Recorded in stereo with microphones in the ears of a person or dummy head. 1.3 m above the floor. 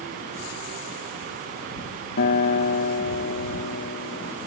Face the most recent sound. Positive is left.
turn(degrees=50)  # may be behind; listen again after turning